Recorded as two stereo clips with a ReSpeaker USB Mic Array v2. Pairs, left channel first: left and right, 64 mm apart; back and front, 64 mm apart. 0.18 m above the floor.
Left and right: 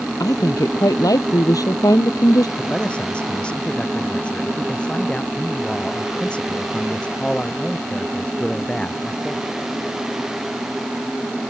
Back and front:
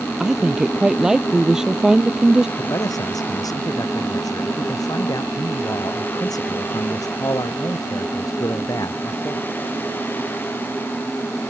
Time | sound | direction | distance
0.2 | a woman speaking | 80° left | ?
2.6 | a man speaking | 160° left | ?